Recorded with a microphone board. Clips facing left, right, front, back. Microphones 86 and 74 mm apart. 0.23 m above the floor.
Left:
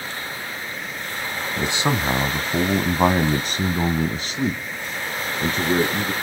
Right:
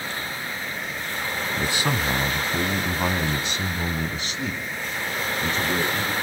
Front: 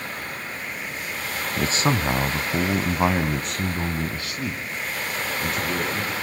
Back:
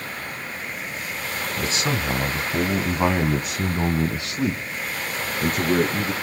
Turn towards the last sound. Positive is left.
turn(degrees=140)